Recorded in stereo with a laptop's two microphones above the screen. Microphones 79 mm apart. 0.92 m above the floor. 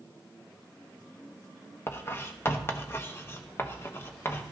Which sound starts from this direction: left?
Writing, at 1.9 s.